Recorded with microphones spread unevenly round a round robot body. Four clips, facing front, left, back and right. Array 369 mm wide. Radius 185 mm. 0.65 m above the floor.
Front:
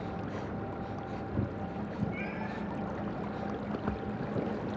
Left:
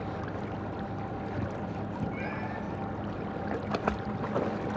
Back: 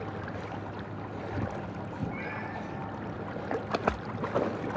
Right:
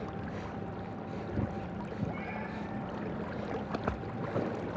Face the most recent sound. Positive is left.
turn(degrees=115)